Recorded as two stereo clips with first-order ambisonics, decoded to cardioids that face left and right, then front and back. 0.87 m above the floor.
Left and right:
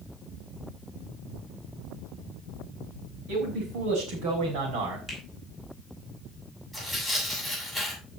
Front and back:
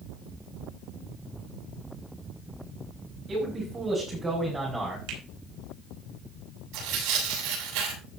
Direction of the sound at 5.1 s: 165° right.